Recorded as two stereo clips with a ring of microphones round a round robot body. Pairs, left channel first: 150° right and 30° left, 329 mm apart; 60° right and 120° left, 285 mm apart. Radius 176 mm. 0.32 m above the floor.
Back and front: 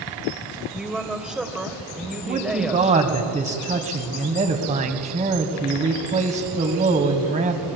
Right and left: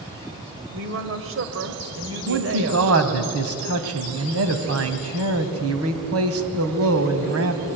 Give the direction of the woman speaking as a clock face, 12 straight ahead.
8 o'clock.